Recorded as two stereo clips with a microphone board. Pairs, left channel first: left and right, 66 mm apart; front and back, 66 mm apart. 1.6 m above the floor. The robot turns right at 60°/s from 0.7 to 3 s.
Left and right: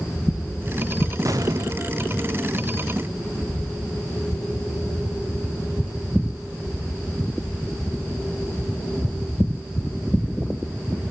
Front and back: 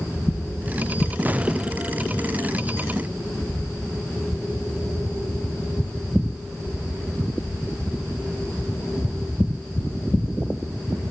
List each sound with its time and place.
1.2 s an explosion: 115° right, 0.7 m; by 1.9 s 80° right, 0.7 m